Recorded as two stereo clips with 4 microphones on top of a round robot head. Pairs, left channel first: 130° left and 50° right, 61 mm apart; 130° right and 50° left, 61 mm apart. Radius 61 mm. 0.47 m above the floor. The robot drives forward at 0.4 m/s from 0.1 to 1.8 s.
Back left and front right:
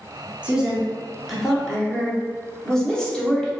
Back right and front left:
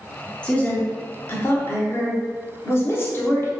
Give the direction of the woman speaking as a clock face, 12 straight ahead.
3 o'clock.